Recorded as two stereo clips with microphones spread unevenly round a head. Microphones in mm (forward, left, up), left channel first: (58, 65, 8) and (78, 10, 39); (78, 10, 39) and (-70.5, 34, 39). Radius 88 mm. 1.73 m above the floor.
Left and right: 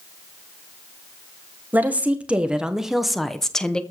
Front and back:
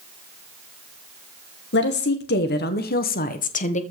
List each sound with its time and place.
1.7 s a woman speaking: 10° right, 2.0 m; by 3.8 s 35° left, 1.7 m